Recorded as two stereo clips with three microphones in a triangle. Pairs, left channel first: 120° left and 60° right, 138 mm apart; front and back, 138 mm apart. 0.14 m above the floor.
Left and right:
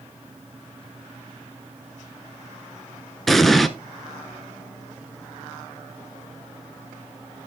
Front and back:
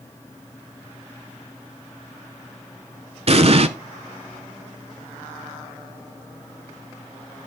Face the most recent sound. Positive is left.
turn(degrees=-150)